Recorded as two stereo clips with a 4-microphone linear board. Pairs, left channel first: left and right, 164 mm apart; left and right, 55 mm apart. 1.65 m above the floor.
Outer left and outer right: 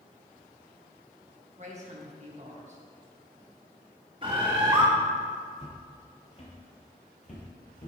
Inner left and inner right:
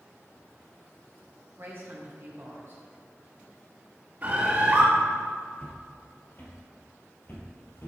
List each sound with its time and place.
1.6 s a woman speaking: 45° right (ahead or behind), 1.7 m
4.2 s a bird: 30° right (ahead or behind), 2.5 m
5.6 s footsteps: 35° left (ahead or behind), 2.5 m; by 7.9 s 55° left (ahead or behind), 2.5 m